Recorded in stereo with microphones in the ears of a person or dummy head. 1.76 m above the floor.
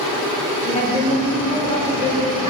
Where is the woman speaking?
30° left (ahead or behind), 5.5 m.